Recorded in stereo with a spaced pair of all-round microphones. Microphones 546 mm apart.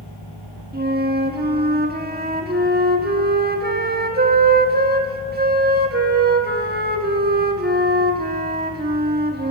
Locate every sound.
0.7 s a flute: 15° right (ahead or behind), 1.2 m